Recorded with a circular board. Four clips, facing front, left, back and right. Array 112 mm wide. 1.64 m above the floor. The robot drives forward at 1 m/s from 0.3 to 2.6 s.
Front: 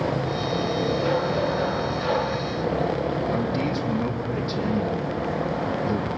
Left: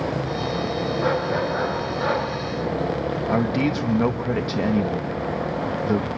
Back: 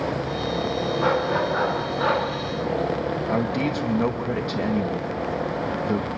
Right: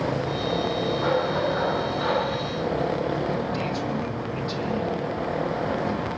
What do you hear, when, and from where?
1.0 s a dog barking: 175° left, 7.5 m
3.3 s a man speaking: 115° left, 2.0 m